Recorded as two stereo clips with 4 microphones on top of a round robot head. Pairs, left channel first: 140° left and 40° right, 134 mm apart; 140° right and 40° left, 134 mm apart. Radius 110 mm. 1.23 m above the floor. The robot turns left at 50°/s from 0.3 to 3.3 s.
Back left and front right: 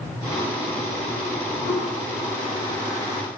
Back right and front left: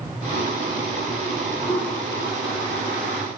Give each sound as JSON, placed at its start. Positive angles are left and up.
{"t": 1.6, "sound": "a toilet flushing", "azimuth_deg": 165, "distance_m": 0.5}